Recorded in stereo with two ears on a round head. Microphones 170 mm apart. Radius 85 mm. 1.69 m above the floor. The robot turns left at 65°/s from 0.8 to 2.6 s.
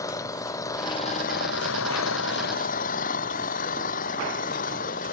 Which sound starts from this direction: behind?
An engine running, at 0.0 s.